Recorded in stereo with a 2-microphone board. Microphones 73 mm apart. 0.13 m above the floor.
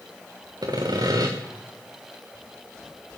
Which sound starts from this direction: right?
Sawing, at 0.6 s.